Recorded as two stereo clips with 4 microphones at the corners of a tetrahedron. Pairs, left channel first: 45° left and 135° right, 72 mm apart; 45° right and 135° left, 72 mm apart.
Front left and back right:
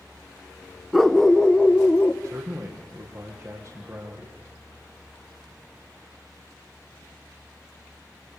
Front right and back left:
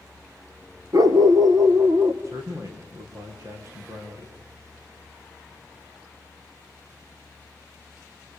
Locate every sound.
0.9 s a dog barking: 140° left, 1.0 m; by 2.1 s 115° left, 2.0 m
2.2 s a man speaking: straight behind, 7 m